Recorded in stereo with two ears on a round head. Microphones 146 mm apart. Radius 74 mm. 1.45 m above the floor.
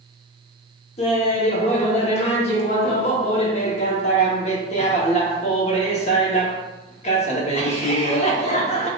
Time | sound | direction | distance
1.0 | laughter | 40° left (ahead or behind) | 0.8 m